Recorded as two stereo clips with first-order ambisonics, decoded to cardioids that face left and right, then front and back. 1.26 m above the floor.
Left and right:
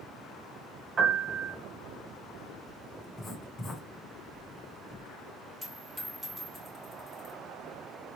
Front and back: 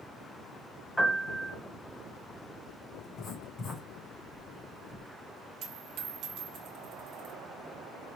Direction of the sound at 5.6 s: Straight behind.